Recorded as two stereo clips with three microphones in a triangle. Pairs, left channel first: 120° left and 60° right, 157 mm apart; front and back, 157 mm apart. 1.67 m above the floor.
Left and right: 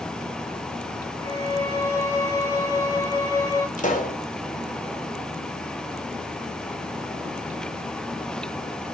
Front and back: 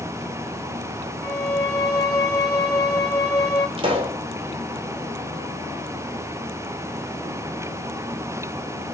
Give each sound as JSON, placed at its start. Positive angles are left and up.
{"t": 1.2, "sound": "a violin", "azimuth_deg": 60, "distance_m": 2.0}
{"t": 3.8, "sound": "a pop", "azimuth_deg": 130, "distance_m": 2.5}